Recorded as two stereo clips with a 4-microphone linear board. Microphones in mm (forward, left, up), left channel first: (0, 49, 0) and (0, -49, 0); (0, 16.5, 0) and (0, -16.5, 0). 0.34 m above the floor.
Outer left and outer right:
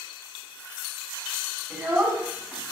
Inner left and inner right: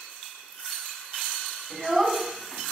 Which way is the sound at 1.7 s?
25° right (ahead or behind).